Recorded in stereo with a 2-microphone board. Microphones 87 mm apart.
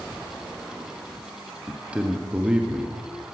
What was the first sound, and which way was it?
A man speaking, 15° right (ahead or behind).